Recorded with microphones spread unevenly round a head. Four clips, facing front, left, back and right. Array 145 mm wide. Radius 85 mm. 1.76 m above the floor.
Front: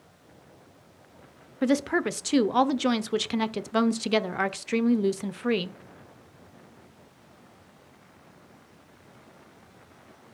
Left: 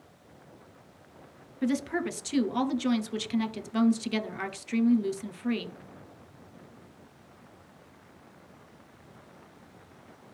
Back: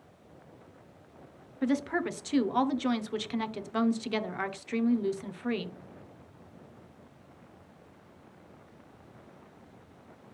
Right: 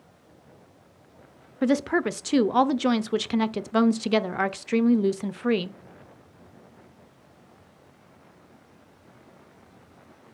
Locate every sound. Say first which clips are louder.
1.6 s a woman speaking: right 6 dB, front 5 dB; 40° right, 0.7 m